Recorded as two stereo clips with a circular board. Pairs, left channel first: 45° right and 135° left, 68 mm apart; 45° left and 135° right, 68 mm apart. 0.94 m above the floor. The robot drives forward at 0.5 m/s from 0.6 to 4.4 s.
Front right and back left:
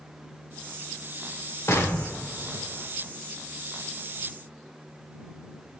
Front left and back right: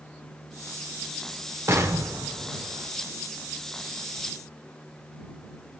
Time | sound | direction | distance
1.7 | an explosion | 90° right | 0.9 m